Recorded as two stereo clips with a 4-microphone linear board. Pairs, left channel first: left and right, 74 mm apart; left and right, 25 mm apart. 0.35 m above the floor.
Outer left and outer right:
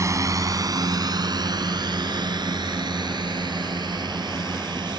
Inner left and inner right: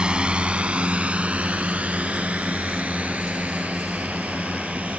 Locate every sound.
0.0 s a drone: 45° right (ahead or behind); by 5.0 s 80° right